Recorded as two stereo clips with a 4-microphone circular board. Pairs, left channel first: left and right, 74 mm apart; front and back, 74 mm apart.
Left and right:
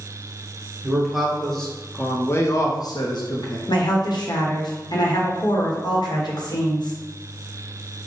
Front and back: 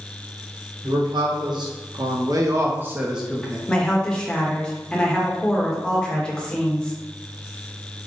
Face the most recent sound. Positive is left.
turn(degrees=80)